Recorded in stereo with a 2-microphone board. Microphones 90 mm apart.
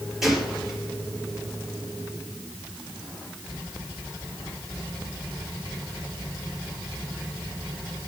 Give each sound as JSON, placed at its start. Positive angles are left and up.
{"t": 0.2, "sound": "a gunshot", "side_deg": -5, "distance_m": 3.5}